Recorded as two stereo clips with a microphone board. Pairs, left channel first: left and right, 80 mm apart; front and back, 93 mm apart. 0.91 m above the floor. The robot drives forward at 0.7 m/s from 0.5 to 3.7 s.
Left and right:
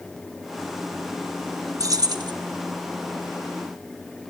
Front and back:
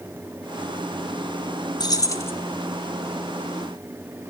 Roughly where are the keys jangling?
Ahead right.